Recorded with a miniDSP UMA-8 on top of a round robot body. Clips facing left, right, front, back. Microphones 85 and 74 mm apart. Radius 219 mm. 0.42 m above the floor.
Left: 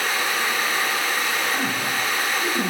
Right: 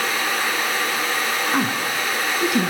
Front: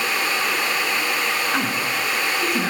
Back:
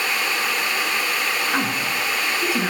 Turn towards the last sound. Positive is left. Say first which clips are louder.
# right 3 dB, even
turn(degrees=-95)